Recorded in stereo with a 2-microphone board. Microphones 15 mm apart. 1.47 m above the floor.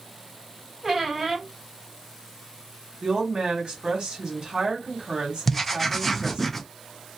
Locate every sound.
0.8 s a squeak: 30° right (ahead or behind), 1.4 m
3.0 s a woman speaking: 65° right (ahead or behind), 1.4 m
5.5 s writing: 5° left (ahead or behind), 0.6 m